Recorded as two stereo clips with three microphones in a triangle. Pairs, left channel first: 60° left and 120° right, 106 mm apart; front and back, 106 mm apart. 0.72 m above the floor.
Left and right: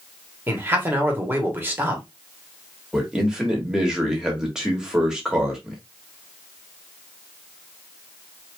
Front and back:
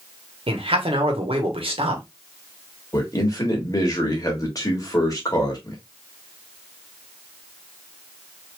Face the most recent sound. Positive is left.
turn(degrees=-40)